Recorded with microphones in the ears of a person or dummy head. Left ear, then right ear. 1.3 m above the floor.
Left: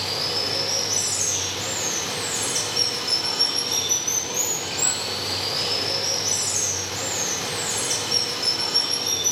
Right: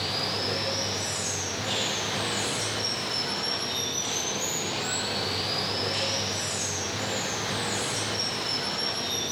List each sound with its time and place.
0.0 s running water: 85° left, 4 m